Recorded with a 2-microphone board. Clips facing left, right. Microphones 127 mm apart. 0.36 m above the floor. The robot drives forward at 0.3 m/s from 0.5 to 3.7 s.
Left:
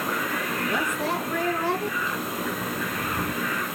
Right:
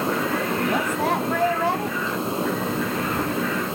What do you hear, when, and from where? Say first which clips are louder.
0.7 s a woman speaking: right 3 dB; 60° right (ahead or behind), 2.5 m